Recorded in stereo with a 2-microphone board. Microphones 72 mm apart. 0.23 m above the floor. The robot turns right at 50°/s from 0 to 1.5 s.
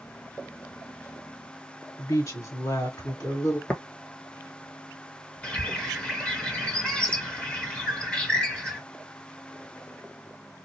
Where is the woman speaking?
50° left (ahead or behind), 2.0 m.